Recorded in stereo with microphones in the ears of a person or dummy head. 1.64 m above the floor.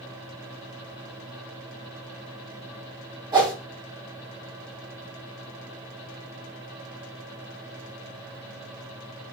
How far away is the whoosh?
About 0.8 m.